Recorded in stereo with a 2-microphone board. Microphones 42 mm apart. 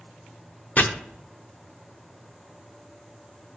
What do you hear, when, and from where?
0.8 s chopping: 40° left (ahead or behind), 0.8 m